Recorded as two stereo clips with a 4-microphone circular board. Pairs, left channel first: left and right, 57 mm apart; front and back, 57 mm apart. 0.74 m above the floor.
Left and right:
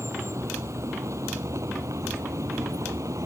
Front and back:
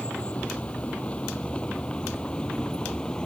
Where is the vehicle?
65° right; by 3.3 s 75° right.